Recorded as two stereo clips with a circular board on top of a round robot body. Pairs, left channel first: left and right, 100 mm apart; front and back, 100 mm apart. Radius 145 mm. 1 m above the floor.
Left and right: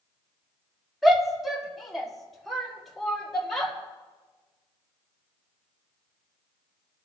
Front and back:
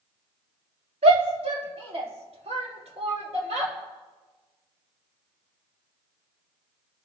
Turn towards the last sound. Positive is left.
turn(degrees=175)